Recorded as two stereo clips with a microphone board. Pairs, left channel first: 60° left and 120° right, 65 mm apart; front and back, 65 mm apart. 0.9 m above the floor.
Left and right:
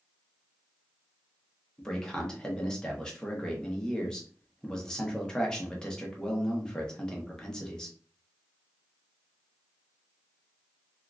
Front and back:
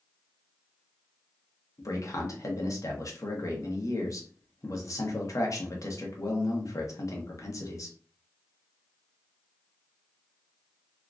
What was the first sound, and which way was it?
A man speaking, 15° right.